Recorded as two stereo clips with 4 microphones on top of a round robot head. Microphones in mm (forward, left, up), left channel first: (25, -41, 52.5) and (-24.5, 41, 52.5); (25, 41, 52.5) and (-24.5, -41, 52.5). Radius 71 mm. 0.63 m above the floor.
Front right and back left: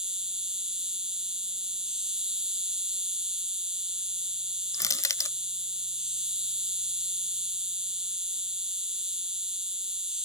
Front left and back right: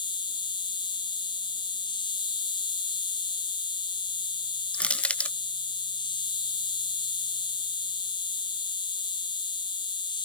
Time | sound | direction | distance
0.0 | an insect | 40° left | ?
4.7 | crushing | 15° right | ?